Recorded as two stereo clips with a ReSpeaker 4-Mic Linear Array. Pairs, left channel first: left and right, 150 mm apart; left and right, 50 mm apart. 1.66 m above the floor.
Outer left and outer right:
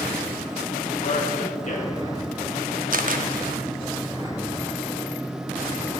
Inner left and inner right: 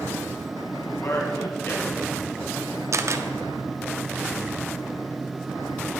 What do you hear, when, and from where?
1.0 s a man speaking: 50° left (ahead or behind), 2 m
2.9 s a camera shutter: 65° right (ahead or behind), 0.6 m